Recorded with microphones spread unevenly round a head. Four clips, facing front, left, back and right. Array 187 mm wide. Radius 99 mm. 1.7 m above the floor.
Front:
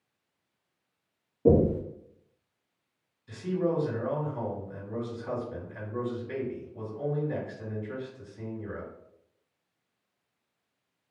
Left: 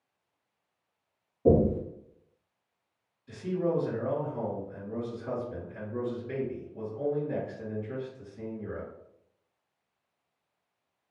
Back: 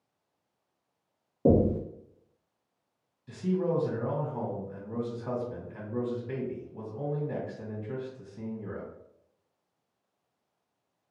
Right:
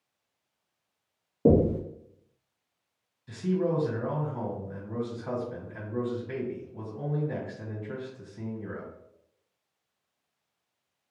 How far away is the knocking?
About 0.8 m.